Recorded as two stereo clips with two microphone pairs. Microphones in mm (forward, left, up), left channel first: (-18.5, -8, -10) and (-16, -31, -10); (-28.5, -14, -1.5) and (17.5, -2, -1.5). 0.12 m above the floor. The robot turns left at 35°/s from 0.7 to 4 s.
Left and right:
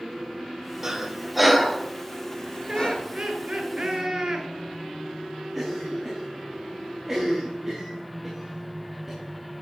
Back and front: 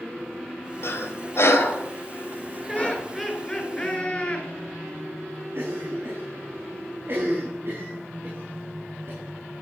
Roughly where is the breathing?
Behind right.